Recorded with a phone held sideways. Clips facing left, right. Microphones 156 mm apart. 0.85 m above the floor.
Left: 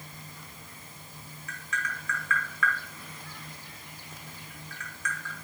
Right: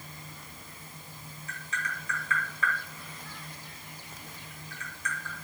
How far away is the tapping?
About 1.6 m.